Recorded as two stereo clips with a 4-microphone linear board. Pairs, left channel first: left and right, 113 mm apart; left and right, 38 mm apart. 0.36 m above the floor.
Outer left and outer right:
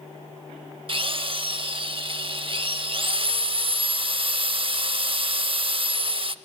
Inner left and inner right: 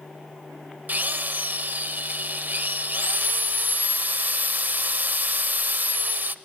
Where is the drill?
50° right (ahead or behind), 0.5 m.